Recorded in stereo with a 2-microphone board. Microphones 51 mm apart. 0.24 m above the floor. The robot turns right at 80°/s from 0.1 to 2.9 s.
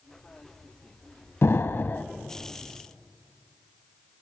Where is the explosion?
90° left, 0.5 m; by 2.0 s 140° left, 0.5 m.